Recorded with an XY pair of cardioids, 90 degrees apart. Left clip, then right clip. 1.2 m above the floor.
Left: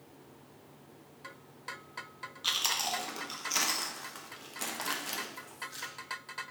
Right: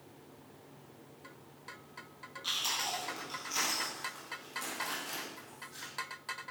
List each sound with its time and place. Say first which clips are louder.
2.4 s chewing: left 3 dB; 65° left, 0.8 m